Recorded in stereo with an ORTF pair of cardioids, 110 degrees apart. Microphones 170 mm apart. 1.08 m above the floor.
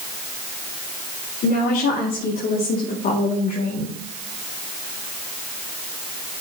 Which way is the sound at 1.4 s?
65° left.